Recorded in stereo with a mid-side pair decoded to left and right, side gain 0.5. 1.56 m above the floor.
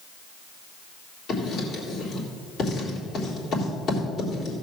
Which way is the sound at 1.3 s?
55° left.